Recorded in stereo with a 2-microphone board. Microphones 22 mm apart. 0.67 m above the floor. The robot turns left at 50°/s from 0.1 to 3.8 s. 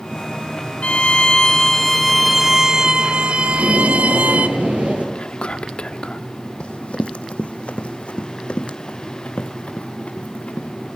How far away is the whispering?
About 1.3 m.